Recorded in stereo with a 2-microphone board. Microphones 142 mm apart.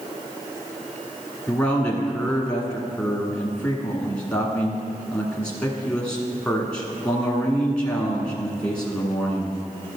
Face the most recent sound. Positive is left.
turn(degrees=10)  # may be behind; listen again after turning